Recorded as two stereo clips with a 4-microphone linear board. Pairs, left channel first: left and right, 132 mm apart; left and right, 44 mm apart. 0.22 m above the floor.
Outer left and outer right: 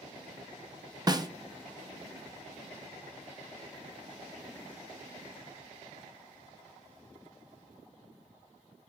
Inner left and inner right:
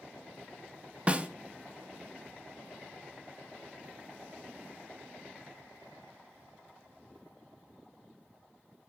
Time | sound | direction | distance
1.1 | a snare drum | 30° right (ahead or behind) | 0.6 m